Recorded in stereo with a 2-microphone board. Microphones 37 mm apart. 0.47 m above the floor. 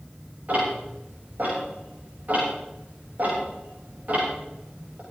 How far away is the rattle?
I don't hear a rattle.